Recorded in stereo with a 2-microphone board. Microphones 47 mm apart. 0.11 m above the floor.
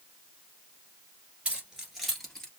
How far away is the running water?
No running water in this recording.